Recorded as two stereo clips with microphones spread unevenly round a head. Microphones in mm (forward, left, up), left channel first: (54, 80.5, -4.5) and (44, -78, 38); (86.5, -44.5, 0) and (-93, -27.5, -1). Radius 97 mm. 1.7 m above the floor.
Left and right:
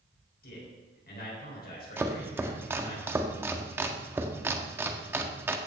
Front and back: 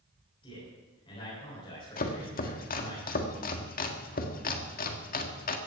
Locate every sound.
0.4 s a man speaking: 60° left, 8 m
2.0 s chopping: 30° right, 1.7 m